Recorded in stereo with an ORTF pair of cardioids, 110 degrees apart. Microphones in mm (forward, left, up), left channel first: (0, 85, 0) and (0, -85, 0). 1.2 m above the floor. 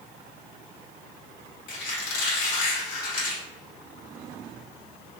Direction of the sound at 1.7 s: 55° left.